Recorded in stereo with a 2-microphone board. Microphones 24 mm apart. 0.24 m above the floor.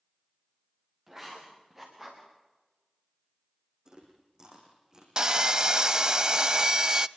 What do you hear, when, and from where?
1.1 s writing: 20° right (ahead or behind), 6 m
3.9 s chewing: 30° right (ahead or behind), 6.5 m
5.2 s sawing: 30° right (ahead or behind), 0.5 m